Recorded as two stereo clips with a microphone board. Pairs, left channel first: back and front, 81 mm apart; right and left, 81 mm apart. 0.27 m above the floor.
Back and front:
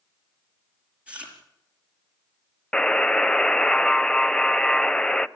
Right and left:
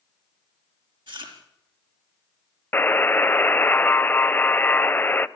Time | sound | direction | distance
1.1 | chewing | 75° left | 5 m
2.7 | a buzzer | 115° right | 0.5 m